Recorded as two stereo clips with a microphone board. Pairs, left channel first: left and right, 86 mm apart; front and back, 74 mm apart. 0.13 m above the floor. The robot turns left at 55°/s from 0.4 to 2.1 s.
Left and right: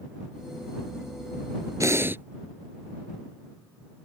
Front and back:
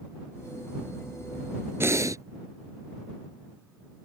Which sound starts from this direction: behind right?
Breathing, at 1.8 s.